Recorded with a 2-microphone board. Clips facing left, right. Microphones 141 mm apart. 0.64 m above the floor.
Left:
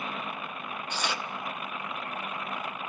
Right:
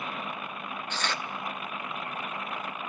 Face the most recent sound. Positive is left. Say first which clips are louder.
# left 1 dB
turn(degrees=10)  # may be behind; listen again after turning